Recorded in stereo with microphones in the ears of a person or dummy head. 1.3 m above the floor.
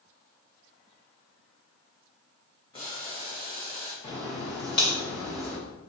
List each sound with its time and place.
2.7 s boiling: 25° left (ahead or behind), 1.2 m
4.0 s a crack: 25° left (ahead or behind), 1.1 m